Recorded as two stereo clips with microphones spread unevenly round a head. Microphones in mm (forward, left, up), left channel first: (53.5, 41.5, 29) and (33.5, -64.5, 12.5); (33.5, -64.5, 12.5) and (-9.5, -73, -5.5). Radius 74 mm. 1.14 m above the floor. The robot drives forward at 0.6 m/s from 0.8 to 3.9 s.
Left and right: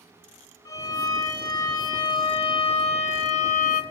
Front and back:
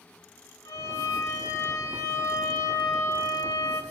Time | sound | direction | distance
0.7 | a violin | 20° left | 2 m